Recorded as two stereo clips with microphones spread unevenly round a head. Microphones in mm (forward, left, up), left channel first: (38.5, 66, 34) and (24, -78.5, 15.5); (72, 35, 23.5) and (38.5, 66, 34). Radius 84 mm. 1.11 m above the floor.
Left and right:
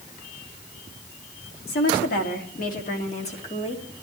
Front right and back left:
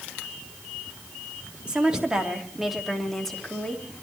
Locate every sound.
1.7 s a woman speaking: 70° left, 2.5 m; by 3.9 s 30° left, 2 m